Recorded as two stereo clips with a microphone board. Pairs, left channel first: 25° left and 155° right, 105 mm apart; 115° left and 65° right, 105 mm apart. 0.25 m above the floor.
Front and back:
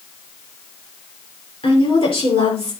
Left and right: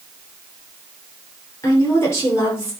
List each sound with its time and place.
1.6 s a woman speaking: 50° left, 6 m